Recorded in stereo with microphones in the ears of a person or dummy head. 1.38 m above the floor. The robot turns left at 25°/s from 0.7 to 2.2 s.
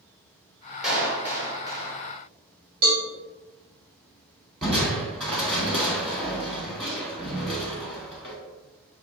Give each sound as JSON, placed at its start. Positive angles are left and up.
{"t": 0.8, "sound": "a clap", "side_deg": 0, "distance_m": 1.3}
{"t": 2.8, "sound": "a cowbell", "side_deg": -50, "distance_m": 1.6}
{"t": 4.6, "sound": "crushing", "side_deg": -5, "distance_m": 1.2}